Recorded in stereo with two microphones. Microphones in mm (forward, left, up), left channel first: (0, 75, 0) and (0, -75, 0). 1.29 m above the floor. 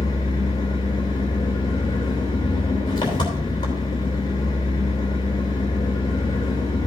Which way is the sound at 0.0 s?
30° left (ahead or behind).